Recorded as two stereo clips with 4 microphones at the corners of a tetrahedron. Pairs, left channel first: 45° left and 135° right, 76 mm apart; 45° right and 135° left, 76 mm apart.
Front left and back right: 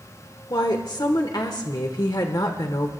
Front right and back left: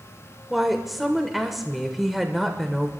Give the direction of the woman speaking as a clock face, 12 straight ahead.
10 o'clock.